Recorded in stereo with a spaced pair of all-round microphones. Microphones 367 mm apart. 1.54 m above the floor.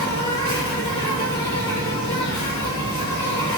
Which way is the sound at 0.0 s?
10° left (ahead or behind).